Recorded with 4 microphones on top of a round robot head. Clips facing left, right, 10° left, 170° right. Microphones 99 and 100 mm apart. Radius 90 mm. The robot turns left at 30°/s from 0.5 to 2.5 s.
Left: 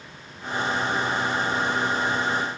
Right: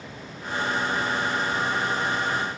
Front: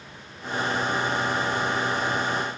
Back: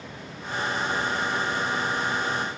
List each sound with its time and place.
Only background noise.